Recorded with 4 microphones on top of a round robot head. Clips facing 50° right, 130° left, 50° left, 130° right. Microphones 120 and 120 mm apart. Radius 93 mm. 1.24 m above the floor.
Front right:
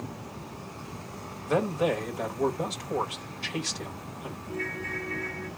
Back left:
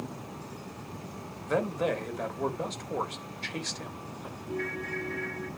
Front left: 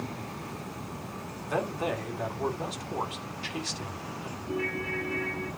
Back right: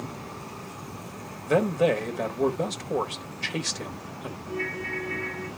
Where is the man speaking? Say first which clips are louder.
Front right 3 dB, back right 8 dB; 135° right, 1.6 m.